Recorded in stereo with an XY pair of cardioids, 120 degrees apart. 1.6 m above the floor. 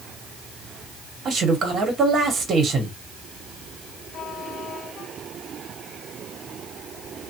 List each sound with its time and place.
1.2 s a man speaking: 45° right, 1.2 m